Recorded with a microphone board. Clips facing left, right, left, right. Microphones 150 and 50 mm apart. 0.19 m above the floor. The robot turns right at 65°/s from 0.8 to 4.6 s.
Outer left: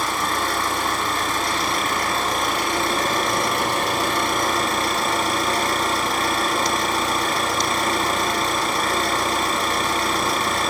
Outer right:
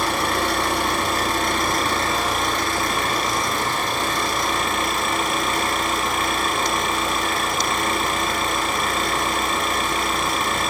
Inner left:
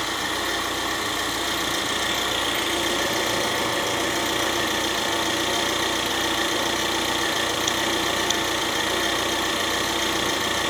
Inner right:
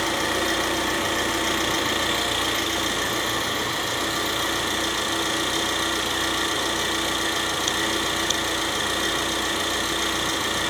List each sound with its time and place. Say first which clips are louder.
0.0 s an engine running: outer right 2 dB, inner right 2 dB; 105° right, 4.5 m; by 10.7 s 140° left, 4.5 m